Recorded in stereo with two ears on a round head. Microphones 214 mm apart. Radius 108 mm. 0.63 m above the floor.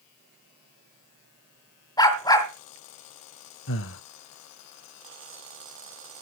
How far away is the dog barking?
About 1.7 m.